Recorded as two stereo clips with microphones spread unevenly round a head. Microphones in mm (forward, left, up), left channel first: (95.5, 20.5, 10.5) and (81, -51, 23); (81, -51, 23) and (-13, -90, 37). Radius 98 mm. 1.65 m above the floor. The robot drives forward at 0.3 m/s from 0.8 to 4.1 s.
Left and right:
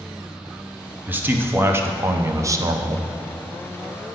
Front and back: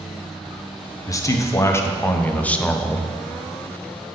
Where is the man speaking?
35° right, 1.1 m; by 3.1 s 70° right, 0.7 m.